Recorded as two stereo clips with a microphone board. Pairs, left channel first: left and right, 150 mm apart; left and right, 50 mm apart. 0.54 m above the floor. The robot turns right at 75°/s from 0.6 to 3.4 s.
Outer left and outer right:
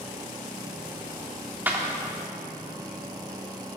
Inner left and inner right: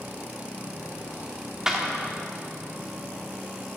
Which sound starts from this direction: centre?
A clap, at 1.7 s.